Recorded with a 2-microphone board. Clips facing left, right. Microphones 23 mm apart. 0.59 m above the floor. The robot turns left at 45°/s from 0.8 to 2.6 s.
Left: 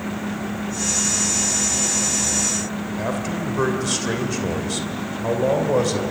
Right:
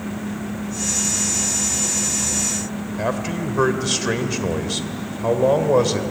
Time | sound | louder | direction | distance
3.0 | a man speaking | right 3 dB | 20° right (ahead or behind) | 2.5 m